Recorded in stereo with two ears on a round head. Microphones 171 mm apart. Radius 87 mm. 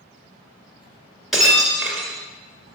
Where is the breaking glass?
Centre (ahead or behind), 1.7 m.